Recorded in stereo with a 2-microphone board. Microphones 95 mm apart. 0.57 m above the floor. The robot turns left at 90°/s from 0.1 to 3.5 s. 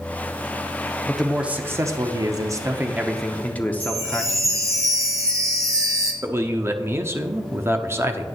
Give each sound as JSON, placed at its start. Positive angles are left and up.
{"t": 1.1, "sound": "a man speaking", "azimuth_deg": 15, "distance_m": 0.9}
{"t": 3.8, "sound": "a chime", "side_deg": -35, "distance_m": 1.7}
{"t": 6.2, "sound": "a man speaking", "side_deg": -30, "distance_m": 0.8}